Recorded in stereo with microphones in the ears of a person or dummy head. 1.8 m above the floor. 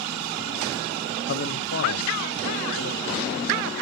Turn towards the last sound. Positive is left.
turn(degrees=75)  # may be behind; listen again after turning